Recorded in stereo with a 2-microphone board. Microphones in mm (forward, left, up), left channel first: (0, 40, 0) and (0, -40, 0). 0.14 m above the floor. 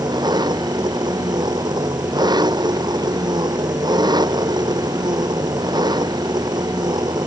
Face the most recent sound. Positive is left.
turn(degrees=-60)  # may be behind; listen again after turning